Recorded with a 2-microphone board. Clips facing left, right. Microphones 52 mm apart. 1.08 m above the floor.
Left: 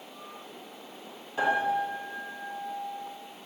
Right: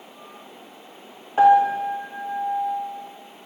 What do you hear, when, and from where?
1.4 s a piano: 40° right (ahead or behind), 0.7 m